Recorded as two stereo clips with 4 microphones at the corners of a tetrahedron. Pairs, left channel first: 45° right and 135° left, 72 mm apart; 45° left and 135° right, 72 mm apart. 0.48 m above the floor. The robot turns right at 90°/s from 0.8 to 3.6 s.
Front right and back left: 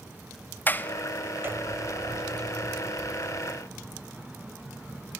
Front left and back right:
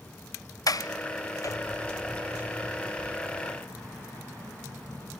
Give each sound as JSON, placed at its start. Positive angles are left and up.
{"t": 0.7, "sound": "a sliding door", "azimuth_deg": 15, "distance_m": 0.5}